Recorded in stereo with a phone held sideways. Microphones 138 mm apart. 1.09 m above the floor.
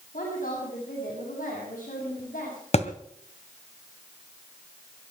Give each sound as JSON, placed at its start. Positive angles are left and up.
{"t": 0.1, "sound": "a woman speaking", "side_deg": 85, "distance_m": 8.0}
{"t": 2.7, "sound": "a thud", "side_deg": 50, "distance_m": 1.7}